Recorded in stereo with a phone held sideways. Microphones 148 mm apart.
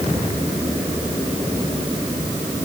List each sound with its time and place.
Only background noise.